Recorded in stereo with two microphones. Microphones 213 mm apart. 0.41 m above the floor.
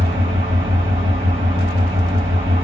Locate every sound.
0.0 s an engine running: 35° right (ahead or behind), 1.6 m